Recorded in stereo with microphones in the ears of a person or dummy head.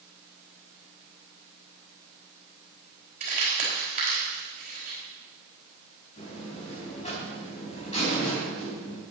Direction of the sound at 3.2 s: 40° right (ahead or behind).